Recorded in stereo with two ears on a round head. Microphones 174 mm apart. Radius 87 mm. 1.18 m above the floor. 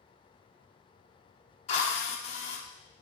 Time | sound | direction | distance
1.7 | a drill | 35° left (ahead or behind) | 0.8 m